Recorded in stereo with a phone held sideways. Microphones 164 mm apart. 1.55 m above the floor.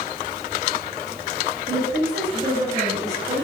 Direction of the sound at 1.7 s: 40° right (ahead or behind).